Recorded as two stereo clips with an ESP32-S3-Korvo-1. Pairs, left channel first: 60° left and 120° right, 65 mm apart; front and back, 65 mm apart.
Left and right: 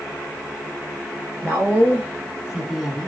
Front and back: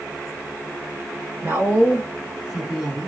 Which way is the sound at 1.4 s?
160° right.